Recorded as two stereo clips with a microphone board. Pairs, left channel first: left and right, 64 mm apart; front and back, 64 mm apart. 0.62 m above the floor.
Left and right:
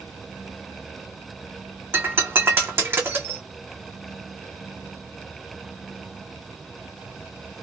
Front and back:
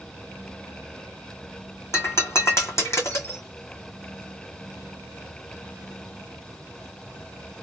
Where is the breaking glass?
40° right, 1.4 m.